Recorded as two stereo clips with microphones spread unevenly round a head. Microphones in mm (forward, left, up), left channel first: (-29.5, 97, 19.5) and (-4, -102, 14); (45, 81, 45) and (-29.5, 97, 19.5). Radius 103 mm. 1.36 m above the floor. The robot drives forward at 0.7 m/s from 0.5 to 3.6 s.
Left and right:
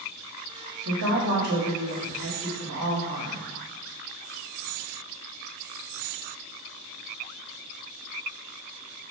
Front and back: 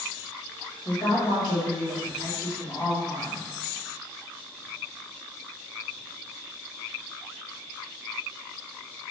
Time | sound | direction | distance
0.8 | a woman speaking | 75° right | 3 m